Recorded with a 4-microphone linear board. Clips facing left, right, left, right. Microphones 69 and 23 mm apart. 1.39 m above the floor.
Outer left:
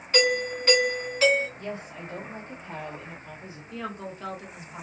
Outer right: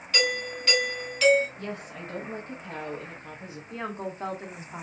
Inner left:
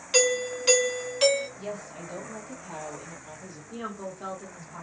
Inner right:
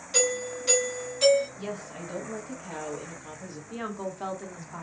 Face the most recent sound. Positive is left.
turn(degrees=-30)  # may be behind; listen again after turning